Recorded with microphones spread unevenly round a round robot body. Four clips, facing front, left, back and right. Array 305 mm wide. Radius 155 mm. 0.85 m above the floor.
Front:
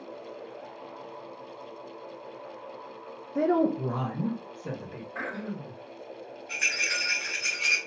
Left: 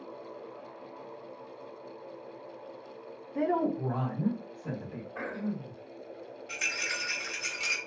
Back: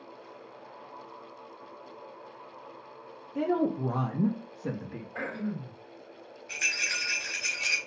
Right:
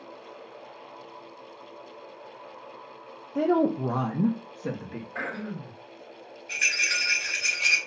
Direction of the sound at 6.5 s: 150° left.